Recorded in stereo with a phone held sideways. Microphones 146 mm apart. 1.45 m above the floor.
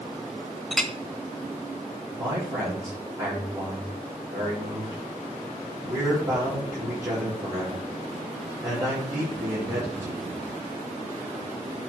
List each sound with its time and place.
0.7 s a clink: 5° left (ahead or behind), 0.8 m
2.2 s a man speaking: 25° right (ahead or behind), 7 m